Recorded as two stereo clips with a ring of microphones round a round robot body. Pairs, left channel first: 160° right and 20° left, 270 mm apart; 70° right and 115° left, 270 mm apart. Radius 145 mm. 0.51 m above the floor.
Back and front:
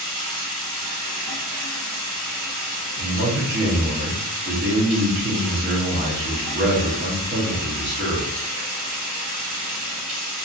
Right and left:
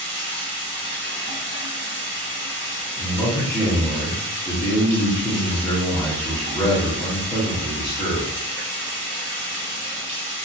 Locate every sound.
0.0 s running water: 15° left, 1.4 m
3.0 s a man speaking: 5° left, 0.9 m